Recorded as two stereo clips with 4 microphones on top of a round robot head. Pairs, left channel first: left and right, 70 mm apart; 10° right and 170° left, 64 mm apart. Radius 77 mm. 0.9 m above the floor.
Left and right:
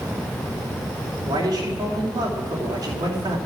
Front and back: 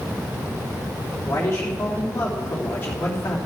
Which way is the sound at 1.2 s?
70° right.